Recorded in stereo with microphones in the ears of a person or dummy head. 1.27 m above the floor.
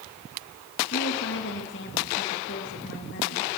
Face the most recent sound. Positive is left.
turn(degrees=55)  # may be behind; listen again after turning